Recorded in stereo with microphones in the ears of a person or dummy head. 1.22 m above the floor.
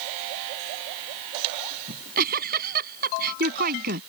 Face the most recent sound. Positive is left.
turn(degrees=-50)  # may be behind; listen again after turning